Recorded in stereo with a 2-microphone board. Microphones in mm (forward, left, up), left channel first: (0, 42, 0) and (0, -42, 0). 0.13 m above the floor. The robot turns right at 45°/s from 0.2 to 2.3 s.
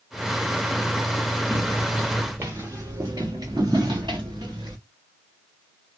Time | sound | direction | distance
1.5 | footsteps | 40° right (ahead or behind) | 1.1 m